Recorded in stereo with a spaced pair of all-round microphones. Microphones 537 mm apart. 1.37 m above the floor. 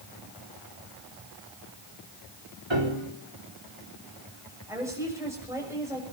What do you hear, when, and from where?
2.7 s a piano: 55° right (ahead or behind), 4 m
4.7 s a woman speaking: 5° right (ahead or behind), 6.5 m